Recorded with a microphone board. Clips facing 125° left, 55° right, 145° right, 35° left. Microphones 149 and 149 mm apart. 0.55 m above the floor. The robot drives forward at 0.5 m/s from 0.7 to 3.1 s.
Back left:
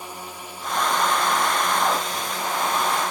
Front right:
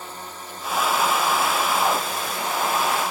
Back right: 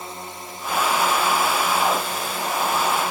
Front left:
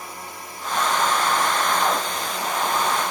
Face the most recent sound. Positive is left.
turn(degrees=-165)